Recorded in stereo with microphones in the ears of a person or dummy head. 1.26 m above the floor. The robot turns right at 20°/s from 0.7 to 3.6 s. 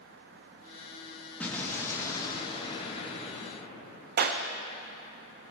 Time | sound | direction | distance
1.4 | an explosion | 5° left | 1.8 m
4.2 | a clap | 50° right (ahead or behind) | 0.6 m